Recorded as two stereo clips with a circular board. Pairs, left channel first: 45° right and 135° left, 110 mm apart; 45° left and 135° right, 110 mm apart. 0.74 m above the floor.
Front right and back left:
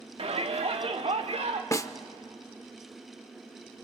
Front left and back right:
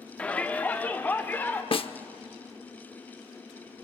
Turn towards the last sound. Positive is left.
turn(degrees=15)